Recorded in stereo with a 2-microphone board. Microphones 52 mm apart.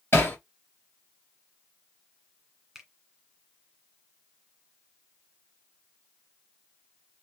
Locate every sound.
0.1 s hammering: 45° left (ahead or behind), 2.5 m
2.8 s a finger snap: 5° right (ahead or behind), 1.8 m